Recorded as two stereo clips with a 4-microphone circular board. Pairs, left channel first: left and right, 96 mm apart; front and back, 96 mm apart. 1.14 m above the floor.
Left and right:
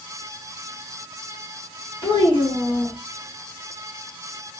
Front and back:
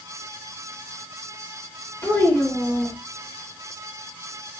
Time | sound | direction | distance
2.0 | a child speaking | 65° left | 1.2 m